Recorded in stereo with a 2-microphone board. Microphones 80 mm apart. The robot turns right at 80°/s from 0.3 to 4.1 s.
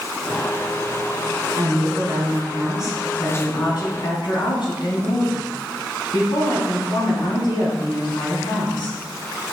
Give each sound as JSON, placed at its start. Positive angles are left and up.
{"t": 1.6, "sound": "a woman speaking", "azimuth_deg": -105, "distance_m": 3.0}